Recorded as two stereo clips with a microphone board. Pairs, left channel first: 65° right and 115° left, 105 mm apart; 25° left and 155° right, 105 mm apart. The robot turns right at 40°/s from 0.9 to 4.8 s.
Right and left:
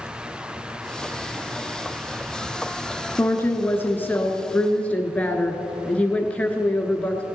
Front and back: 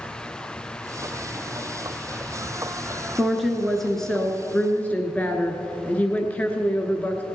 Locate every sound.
3.2 s a woman speaking: 85° right, 1.1 m; by 7.2 s 20° right, 1.1 m